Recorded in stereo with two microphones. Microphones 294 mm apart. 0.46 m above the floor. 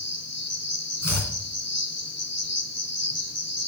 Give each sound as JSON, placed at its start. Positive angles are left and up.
{"t": 0.0, "sound": "an insect", "side_deg": 60, "distance_m": 1.2}
{"t": 1.0, "sound": "chopping", "side_deg": 65, "distance_m": 2.5}